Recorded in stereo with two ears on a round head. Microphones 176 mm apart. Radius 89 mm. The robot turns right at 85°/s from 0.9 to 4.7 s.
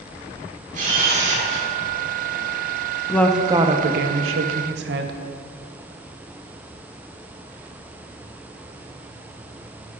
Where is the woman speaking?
165° left, 0.8 m; by 5.1 s 60° right, 0.8 m.